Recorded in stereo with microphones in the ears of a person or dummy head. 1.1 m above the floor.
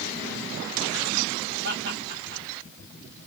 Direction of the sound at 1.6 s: 70° right (ahead or behind).